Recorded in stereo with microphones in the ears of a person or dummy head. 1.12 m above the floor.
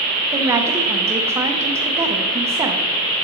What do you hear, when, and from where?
0.3 s a woman speaking: 20° right (ahead or behind), 0.5 m